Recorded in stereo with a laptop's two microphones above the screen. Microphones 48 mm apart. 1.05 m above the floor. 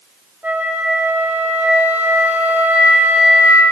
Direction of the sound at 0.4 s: 40° right (ahead or behind).